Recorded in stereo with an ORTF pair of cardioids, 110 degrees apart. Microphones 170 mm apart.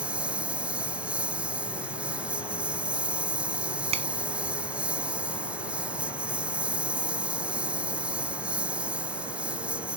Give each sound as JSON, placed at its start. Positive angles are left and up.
{"t": 0.0, "sound": "a lawn mower", "azimuth_deg": -5}
{"t": 3.9, "sound": "a finger snap", "azimuth_deg": -35}